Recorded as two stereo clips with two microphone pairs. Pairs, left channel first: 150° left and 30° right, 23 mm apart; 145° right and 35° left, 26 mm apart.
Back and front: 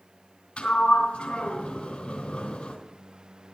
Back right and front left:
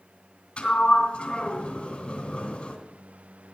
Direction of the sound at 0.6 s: 165° left.